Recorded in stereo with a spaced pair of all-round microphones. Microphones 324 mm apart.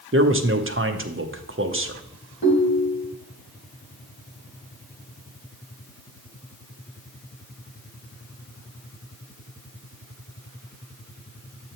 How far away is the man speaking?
About 0.7 m.